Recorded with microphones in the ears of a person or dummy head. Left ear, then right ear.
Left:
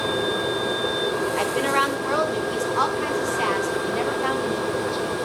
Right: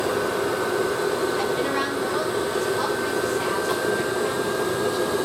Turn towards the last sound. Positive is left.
turn(degrees=60)  # may be behind; listen again after turning